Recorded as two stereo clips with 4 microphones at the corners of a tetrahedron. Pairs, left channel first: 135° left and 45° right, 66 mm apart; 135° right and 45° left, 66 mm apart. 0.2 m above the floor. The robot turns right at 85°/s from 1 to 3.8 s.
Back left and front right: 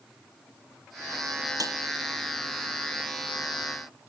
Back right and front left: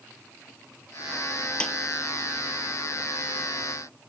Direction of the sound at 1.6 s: 60° right.